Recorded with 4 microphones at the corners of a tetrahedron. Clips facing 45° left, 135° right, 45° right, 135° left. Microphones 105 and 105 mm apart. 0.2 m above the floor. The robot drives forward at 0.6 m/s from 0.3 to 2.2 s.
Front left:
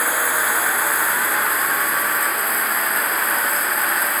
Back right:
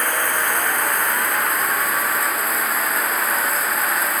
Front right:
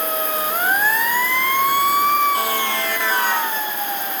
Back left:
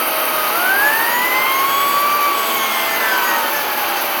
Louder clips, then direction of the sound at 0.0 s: Front left 1 dB, back left 4 dB; 130° left.